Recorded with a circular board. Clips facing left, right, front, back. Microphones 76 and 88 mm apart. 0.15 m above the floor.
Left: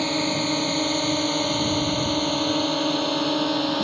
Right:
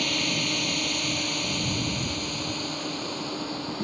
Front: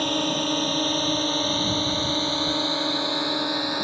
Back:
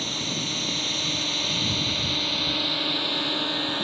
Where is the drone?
35° left; by 3.9 s 75° left.